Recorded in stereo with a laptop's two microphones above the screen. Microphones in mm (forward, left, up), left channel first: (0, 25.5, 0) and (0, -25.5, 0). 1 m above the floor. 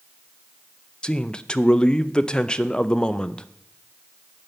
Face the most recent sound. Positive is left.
turn(degrees=15)  # may be behind; listen again after turning